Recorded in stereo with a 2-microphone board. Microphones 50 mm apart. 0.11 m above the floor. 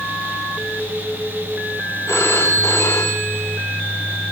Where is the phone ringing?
70° left (ahead or behind), 5 m.